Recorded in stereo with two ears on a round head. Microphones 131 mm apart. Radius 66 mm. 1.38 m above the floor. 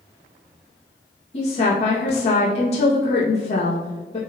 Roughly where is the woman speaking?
Left.